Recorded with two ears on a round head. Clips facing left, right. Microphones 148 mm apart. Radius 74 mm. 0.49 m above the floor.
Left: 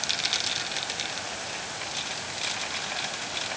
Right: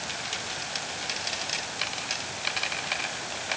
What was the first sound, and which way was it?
Only background noise.